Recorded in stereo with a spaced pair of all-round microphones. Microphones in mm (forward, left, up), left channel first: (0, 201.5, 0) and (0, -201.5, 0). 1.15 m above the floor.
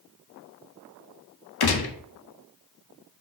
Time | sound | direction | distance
1.6 | a gunshot | 65° left (ahead or behind) | 0.5 m